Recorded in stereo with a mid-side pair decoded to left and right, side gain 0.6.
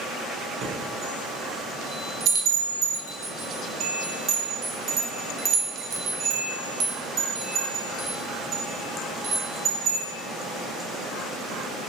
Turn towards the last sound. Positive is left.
turn(degrees=-50)